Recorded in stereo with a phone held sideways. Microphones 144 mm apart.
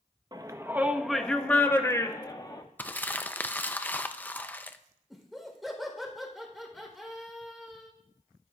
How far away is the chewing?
I don't hear chewing.